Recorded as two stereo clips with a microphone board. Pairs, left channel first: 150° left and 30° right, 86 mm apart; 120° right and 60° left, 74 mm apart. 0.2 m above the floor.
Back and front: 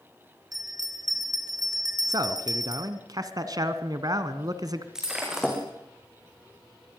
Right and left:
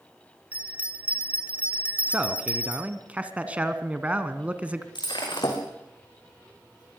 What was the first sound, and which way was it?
A bell, 10° right.